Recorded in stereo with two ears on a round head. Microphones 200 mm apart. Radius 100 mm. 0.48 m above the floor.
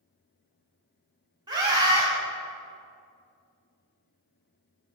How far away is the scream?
About 1.2 m.